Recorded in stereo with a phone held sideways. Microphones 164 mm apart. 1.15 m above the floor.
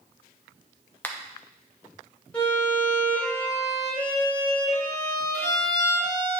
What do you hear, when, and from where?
1.0 s a finger snap: 10° left (ahead or behind), 0.7 m
2.3 s a violin: 10° left (ahead or behind), 3.5 m